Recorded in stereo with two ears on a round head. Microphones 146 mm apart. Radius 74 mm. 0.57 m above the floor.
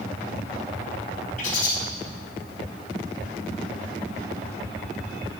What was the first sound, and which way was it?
A bird, 50° left (ahead or behind).